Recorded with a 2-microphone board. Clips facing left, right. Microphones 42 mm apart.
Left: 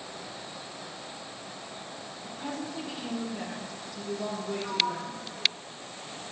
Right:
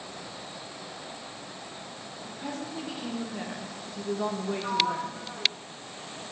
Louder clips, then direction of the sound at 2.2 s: Even; 5° left (ahead or behind).